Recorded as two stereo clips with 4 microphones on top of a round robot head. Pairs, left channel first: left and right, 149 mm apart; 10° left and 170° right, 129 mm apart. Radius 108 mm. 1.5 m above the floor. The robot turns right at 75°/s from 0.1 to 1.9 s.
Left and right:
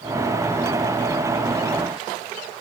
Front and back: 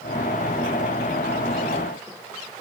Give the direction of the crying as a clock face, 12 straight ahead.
I don't hear crying.